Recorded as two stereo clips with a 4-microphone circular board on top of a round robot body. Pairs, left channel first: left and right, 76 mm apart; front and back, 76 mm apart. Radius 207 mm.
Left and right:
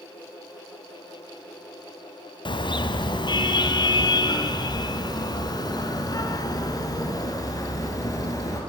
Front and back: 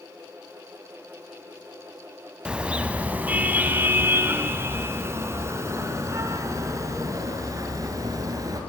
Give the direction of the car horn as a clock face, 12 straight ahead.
9 o'clock.